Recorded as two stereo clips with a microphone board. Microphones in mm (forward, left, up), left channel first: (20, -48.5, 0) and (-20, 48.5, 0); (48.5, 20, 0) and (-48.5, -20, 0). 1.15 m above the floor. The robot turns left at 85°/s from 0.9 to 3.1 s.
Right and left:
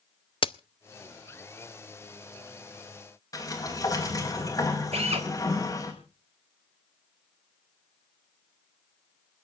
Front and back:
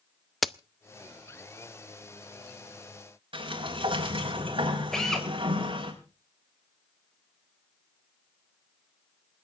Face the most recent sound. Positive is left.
turn(degrees=110)